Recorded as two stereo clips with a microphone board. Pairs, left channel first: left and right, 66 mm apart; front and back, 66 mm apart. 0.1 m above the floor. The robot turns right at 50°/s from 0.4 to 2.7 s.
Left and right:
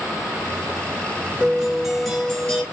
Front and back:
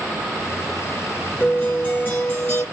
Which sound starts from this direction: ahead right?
A guitar, at 1.4 s.